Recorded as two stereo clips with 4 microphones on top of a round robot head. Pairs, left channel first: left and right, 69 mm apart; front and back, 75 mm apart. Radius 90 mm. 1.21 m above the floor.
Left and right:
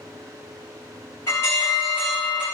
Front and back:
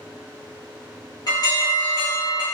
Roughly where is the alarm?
Ahead left.